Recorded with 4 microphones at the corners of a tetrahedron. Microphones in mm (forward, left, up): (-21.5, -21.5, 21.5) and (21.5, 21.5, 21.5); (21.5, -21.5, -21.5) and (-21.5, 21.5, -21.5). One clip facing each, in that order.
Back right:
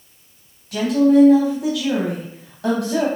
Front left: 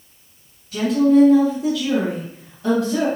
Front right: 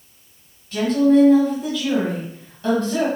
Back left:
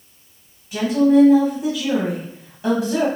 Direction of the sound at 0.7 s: 150° right.